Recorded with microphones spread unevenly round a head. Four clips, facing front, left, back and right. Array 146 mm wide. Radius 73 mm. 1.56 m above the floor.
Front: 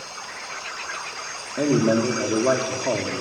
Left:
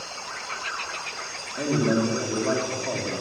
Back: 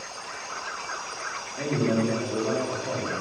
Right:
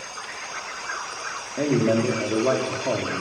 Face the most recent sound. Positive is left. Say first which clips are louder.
# right 2 dB, front 6 dB
turn(degrees=-30)